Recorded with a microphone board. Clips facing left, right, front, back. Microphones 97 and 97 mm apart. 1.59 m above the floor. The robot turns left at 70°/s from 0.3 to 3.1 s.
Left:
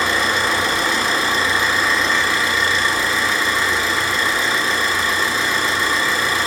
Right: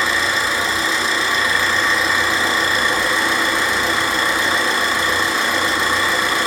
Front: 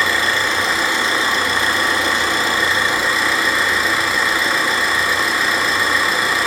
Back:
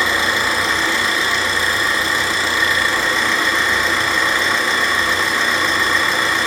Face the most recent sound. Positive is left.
turn(degrees=-80)